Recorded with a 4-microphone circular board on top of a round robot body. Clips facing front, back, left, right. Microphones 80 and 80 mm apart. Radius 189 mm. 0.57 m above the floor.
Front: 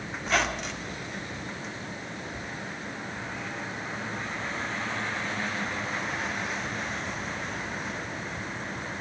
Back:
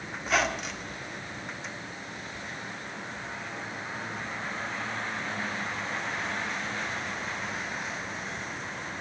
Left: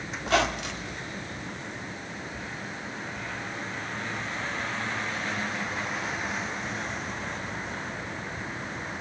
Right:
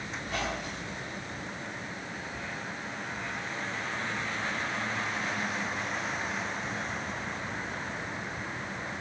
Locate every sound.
0.2 s a squeak: 90° left, 1.6 m